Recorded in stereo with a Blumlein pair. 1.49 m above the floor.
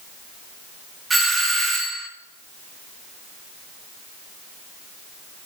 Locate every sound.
1.1 s a doorbell: 15° right, 1.2 m